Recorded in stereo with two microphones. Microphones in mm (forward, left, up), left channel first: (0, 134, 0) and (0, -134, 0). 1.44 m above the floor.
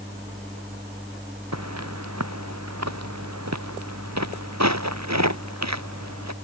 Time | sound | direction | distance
1.5 | footsteps | 75° right (ahead or behind) | ?